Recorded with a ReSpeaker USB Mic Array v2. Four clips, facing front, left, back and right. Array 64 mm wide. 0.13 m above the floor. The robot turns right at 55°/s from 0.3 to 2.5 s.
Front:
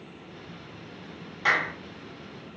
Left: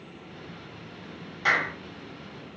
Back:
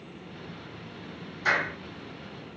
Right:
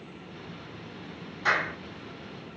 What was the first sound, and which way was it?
A clap, 30° left.